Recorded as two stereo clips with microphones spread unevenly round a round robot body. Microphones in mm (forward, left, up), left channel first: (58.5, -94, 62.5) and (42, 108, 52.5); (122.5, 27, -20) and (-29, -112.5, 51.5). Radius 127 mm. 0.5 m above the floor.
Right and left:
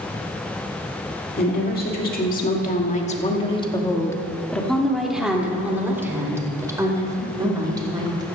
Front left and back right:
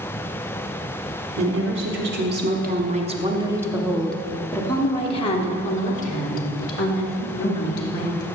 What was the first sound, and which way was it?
A woman speaking, 115° right.